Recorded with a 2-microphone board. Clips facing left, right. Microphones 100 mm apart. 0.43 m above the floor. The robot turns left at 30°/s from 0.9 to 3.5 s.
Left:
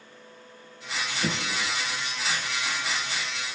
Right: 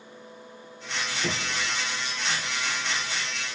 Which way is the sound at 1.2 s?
55° left (ahead or behind).